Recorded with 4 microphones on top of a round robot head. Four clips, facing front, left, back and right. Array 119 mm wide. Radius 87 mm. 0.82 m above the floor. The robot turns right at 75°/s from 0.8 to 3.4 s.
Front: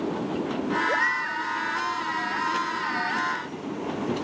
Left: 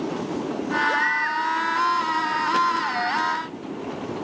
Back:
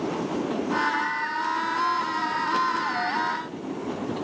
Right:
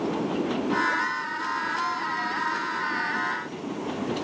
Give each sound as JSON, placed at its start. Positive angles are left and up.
{"t": 0.9, "sound": "a baby crying", "azimuth_deg": 20}